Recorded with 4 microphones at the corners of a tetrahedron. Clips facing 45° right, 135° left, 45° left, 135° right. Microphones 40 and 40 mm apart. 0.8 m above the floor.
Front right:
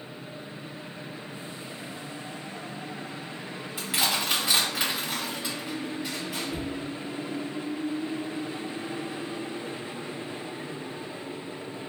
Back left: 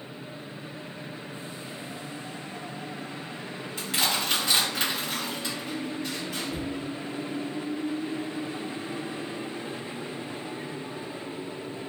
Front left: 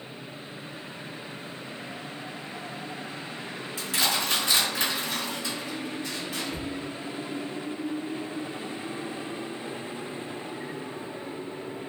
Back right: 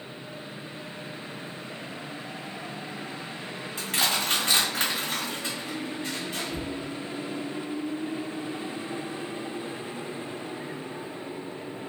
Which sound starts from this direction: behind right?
Crushing, at 3.8 s.